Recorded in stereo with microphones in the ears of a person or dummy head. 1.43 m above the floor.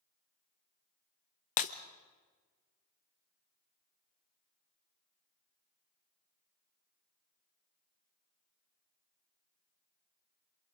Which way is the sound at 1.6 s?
40° left (ahead or behind).